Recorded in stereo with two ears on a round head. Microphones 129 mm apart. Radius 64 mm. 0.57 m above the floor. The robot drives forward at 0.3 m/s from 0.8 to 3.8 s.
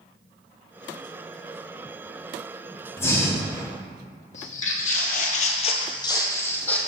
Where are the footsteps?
55° left (ahead or behind), 1.3 m; by 6.8 s 10° left (ahead or behind), 1.2 m.